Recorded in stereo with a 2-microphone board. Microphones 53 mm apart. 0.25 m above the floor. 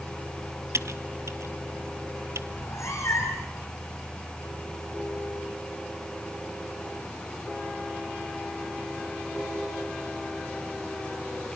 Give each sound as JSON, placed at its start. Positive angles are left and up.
{"t": 0.7, "sound": "typing on a keyboard", "side_deg": -75, "distance_m": 0.9}
{"t": 2.5, "sound": "a cat meowing", "side_deg": 75, "distance_m": 6.0}